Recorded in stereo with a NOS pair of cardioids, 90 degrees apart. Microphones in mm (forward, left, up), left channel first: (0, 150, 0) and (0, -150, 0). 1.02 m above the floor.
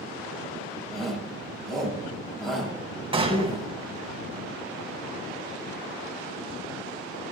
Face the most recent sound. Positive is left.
turn(degrees=-20)